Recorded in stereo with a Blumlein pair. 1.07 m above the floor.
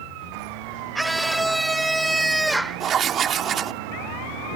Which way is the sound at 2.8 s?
25° right.